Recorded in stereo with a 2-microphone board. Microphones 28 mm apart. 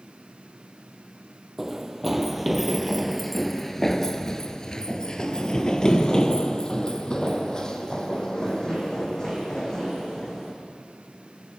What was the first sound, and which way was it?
Running footsteps, 10° right (ahead or behind).